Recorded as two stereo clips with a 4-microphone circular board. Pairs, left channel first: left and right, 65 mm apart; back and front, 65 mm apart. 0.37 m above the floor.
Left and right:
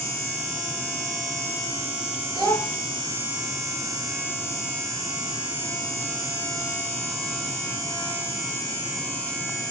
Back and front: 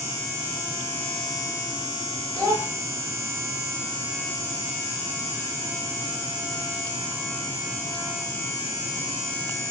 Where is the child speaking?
Straight ahead, 1.4 m.